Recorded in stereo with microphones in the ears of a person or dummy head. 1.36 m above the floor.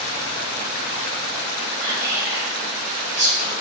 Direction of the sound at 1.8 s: 40° right (ahead or behind).